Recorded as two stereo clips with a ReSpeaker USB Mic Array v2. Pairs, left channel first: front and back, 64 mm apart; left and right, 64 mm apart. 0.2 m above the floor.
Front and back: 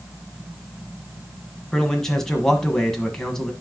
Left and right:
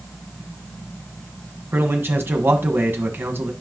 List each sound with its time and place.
1.7 s a man speaking: 75° right, 1.5 m